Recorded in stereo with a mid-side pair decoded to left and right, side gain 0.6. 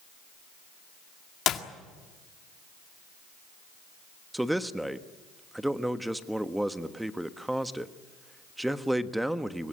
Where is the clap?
50° left, 1.9 m.